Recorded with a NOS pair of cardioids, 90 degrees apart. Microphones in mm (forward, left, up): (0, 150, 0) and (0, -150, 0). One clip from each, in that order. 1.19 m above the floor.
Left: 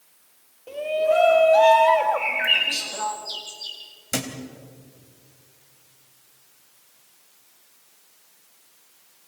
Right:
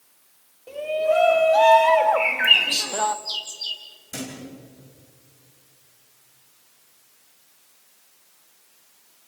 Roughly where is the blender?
No blender in this recording.